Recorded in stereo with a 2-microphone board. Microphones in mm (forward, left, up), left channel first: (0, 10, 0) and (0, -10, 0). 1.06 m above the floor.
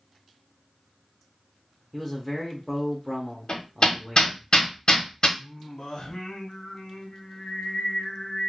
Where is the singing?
45° left (ahead or behind), 0.7 m.